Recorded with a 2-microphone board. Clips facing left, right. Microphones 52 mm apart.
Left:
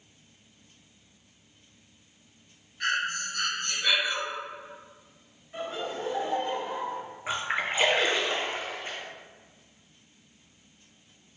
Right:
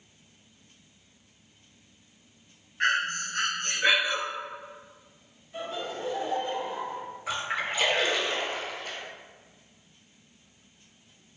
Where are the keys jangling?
No keys jangling in this recording.